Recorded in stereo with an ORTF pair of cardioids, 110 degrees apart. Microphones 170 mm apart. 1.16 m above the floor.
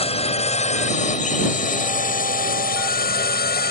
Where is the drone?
35° left; by 3.7 s 70° left.